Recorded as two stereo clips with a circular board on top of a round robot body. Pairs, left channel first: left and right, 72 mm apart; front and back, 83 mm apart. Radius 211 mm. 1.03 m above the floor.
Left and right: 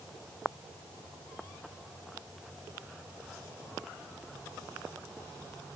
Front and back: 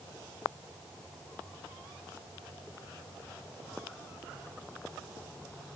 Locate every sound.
Only background noise.